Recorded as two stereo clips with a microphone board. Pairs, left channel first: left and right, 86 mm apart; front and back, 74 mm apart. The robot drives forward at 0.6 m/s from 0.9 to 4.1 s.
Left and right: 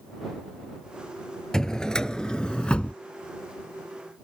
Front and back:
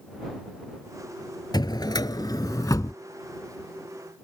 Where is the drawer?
5° left; by 2.9 s 15° left.